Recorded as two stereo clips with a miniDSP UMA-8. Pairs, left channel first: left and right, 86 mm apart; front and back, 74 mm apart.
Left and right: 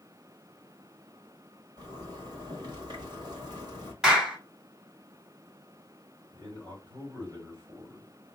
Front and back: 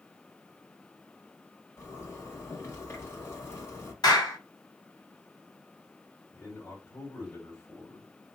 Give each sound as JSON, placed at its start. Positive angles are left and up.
{"t": 1.8, "sound": "a zipper", "azimuth_deg": -55, "distance_m": 1.6}
{"t": 4.0, "sound": "a clap", "azimuth_deg": -10, "distance_m": 2.5}
{"t": 6.3, "sound": "a man speaking", "azimuth_deg": -60, "distance_m": 2.5}